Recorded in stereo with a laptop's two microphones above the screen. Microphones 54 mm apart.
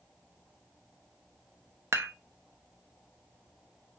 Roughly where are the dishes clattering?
Right.